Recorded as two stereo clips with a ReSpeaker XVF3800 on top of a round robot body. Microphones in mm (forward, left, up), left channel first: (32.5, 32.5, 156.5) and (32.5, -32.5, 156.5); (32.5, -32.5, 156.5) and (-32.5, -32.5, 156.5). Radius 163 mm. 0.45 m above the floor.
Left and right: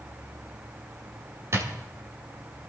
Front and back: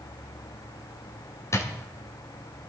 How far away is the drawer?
About 1.9 m.